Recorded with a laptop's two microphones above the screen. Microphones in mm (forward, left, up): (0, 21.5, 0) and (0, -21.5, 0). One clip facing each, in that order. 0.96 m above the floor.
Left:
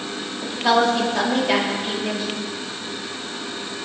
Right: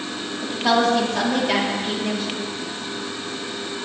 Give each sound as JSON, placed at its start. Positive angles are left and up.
{"t": 0.4, "sound": "a woman speaking", "side_deg": 5, "distance_m": 2.0}